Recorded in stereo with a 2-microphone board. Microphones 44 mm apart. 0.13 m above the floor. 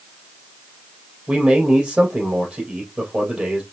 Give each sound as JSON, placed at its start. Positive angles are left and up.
{"t": 1.3, "sound": "a man speaking", "side_deg": -25, "distance_m": 3.5}